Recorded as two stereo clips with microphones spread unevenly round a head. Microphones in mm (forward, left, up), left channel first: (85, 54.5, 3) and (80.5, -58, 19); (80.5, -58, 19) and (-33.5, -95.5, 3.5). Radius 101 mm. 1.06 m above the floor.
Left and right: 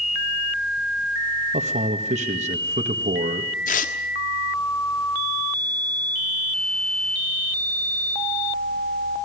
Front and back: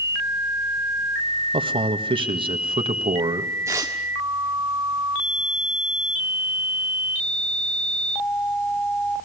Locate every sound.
1.5 s a man speaking: 130° right, 1.6 m
3.7 s tearing paper: 120° left, 1.3 m